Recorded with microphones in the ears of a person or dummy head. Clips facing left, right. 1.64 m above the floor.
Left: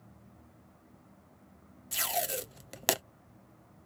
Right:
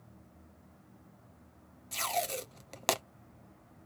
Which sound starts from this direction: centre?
Tape being pulled, at 1.9 s.